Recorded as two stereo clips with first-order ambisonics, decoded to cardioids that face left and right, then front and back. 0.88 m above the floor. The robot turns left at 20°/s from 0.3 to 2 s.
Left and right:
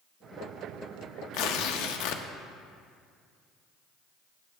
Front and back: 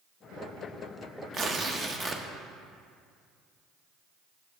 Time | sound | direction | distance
1.3 | tearing paper | 115° left | 0.5 m